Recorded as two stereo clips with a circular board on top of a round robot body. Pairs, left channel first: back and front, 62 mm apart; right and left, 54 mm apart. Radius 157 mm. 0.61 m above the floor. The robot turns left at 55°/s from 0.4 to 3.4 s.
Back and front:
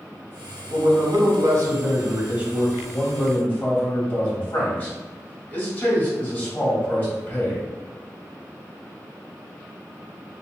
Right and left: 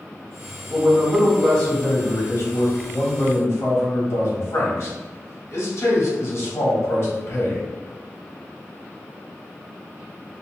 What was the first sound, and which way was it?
A man speaking, 25° left.